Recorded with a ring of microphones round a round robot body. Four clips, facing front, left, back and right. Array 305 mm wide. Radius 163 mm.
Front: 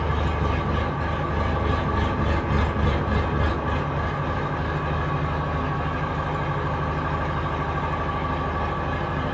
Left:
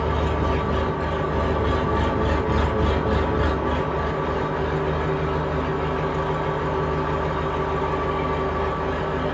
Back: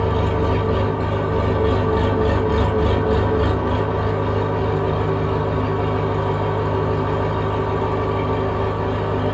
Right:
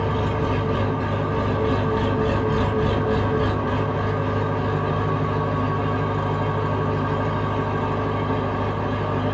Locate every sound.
0.0 s an engine running: 155° left, 1.2 m